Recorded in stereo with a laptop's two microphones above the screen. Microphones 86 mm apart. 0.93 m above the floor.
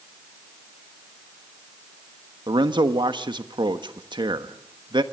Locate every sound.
2.5 s a man speaking: 65° right (ahead or behind), 1.3 m